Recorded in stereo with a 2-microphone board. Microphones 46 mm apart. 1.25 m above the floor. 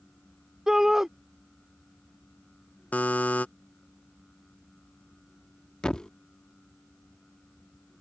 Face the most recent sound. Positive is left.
turn(degrees=15)  # may be behind; listen again after turning